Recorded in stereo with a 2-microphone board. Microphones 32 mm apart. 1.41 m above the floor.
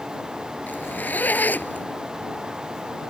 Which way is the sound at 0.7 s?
80° left.